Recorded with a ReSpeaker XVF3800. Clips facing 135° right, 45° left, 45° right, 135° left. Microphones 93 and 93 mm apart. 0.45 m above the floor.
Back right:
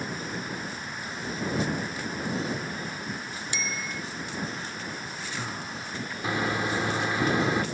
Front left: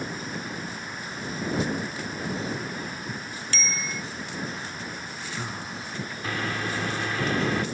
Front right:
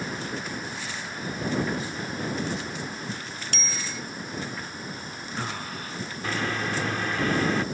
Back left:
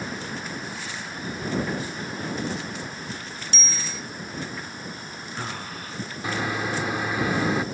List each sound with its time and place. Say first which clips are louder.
3.5 s a bicycle bell: front left 3 dB, front right 1 dB; 65° right
6.2 s a microwave: back right 3 dB, back left 1 dB; 170° right